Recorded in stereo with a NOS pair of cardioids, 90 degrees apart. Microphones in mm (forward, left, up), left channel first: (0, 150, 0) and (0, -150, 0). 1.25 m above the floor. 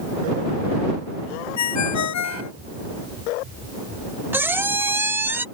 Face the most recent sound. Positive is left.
turn(degrees=-5)